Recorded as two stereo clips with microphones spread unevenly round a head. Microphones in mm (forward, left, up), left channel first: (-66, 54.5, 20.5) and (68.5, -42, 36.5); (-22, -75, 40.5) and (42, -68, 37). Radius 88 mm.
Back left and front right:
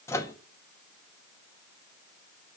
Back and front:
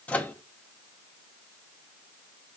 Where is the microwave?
145° right, 0.5 m.